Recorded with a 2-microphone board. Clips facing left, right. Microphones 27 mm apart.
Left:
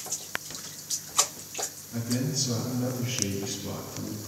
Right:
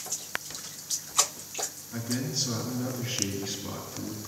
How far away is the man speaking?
About 2.5 m.